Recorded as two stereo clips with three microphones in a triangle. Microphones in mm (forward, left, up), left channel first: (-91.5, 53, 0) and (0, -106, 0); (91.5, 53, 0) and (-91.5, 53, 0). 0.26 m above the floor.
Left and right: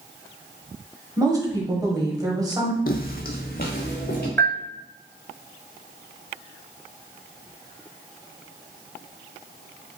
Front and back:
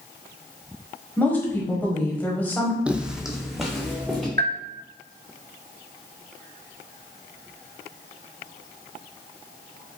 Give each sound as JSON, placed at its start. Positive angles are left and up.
{"t": 1.2, "sound": "a woman speaking", "azimuth_deg": -60, "distance_m": 1.1}
{"t": 2.9, "sound": "footsteps", "azimuth_deg": 95, "distance_m": 0.5}
{"t": 4.4, "sound": "a bell", "azimuth_deg": -160, "distance_m": 0.6}